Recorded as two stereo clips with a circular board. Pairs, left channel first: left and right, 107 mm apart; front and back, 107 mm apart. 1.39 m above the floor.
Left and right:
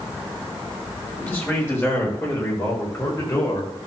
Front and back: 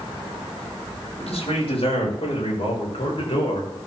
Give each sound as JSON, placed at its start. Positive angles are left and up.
{"t": 1.2, "sound": "a man speaking", "azimuth_deg": 20, "distance_m": 6.5}